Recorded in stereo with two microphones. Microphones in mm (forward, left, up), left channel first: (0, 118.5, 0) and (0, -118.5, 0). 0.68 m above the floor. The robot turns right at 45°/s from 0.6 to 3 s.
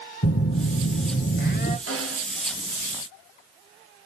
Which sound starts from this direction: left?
A phone buzzing, at 0.2 s.